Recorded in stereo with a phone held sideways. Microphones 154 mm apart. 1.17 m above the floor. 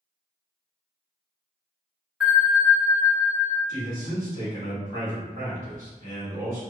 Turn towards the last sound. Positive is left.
turn(degrees=-60)  # may be behind; listen again after turning